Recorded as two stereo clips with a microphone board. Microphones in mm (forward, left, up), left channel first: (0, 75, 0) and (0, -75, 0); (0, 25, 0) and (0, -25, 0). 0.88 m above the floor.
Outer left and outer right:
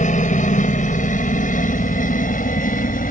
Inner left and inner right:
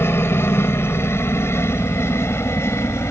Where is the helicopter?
55° left (ahead or behind); by 3.1 s 65° left (ahead or behind).